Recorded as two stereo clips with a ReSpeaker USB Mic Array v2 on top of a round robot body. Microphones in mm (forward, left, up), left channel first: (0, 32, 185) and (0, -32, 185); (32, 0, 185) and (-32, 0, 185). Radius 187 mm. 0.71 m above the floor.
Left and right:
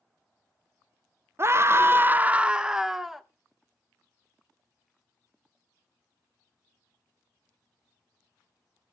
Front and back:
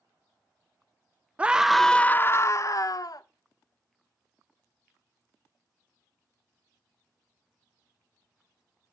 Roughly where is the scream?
Behind right.